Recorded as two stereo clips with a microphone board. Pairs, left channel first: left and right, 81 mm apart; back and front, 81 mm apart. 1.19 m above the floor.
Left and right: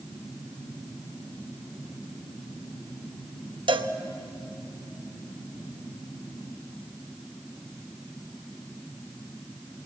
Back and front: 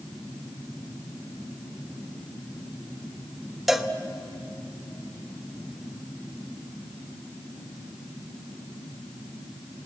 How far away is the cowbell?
About 1.0 m.